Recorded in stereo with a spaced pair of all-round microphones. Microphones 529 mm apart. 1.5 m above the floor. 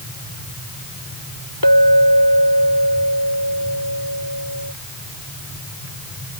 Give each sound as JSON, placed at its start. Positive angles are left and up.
{"t": 1.6, "sound": "a clink", "side_deg": 40}